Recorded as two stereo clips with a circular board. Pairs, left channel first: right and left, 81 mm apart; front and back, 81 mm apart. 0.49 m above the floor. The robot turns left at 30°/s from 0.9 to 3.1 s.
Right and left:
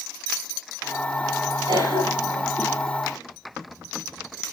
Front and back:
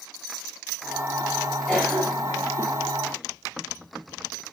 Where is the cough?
95° left, 10 m; by 2.5 s 70° left, 10 m.